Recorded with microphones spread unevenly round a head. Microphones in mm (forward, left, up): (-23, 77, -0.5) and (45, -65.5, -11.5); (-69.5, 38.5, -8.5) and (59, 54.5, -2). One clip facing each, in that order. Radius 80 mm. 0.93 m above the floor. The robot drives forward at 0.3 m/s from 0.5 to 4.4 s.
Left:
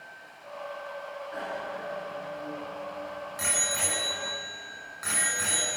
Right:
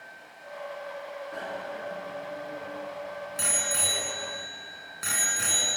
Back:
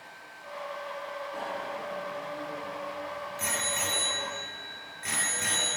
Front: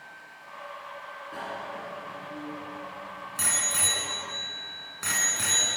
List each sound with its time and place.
1.3 s a bicycle bell: 10° right, 7.5 m